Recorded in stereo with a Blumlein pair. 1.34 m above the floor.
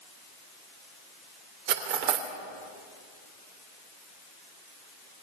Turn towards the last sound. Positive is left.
turn(degrees=-50)